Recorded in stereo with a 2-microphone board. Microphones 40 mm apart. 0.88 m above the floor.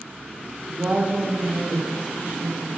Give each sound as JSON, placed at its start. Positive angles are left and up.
{"t": 0.7, "sound": "a woman speaking", "side_deg": -20, "distance_m": 0.6}